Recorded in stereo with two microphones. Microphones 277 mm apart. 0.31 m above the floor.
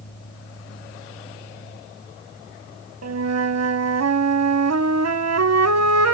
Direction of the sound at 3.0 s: 70° right (ahead or behind).